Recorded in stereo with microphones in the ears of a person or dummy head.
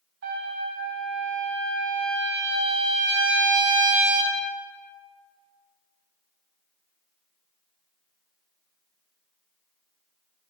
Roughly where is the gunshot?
I don't hear a gunshot.